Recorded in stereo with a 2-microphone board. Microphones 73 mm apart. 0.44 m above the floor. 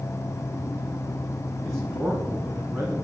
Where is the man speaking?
Centre (ahead or behind), 3.5 m.